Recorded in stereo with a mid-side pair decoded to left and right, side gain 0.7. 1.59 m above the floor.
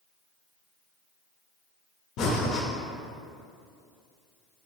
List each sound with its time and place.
2.2 s breathing: 55° left, 0.7 m